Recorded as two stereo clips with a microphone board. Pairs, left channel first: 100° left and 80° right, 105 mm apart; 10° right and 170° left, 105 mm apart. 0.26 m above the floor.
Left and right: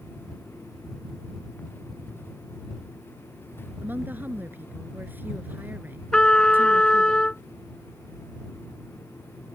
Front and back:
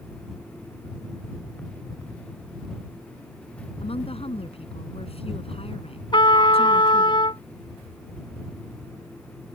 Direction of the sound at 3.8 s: 10° right.